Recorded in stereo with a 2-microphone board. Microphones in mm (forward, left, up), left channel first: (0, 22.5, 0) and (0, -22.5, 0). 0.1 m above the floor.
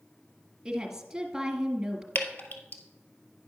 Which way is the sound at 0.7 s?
10° right (ahead or behind).